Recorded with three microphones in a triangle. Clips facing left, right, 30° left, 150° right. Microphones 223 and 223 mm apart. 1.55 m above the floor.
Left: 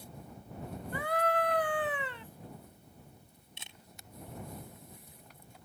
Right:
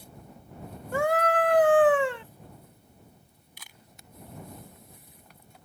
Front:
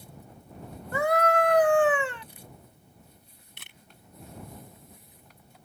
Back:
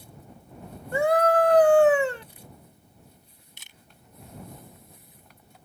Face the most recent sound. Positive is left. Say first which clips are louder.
# even, front 2 dB
turn(degrees=30)